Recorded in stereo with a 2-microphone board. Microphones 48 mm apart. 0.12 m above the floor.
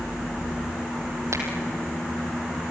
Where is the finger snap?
70° right (ahead or behind), 3 m.